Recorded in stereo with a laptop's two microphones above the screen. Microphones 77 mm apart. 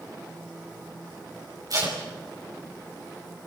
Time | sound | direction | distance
1.7 | tape being pulled | 55° right (ahead or behind) | 5 m